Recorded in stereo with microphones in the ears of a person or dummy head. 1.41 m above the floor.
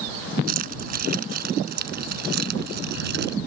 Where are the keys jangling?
50° right (ahead or behind); by 3.4 s 60° right (ahead or behind).